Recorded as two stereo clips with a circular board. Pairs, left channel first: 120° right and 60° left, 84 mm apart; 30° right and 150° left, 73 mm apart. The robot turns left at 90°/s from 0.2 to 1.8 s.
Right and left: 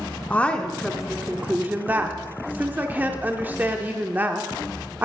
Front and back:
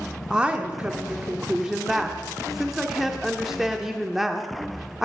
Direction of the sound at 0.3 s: 150° right.